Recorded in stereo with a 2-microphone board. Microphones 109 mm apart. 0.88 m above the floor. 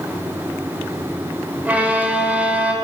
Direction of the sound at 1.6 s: 15° right (ahead or behind).